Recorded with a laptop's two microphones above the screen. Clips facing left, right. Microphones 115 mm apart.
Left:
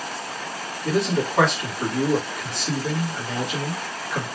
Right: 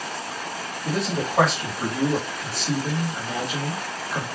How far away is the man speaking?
About 1.4 m.